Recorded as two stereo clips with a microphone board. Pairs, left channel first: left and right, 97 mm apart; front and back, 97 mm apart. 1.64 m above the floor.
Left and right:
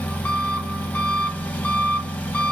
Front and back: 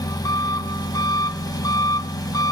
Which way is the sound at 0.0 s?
20° left.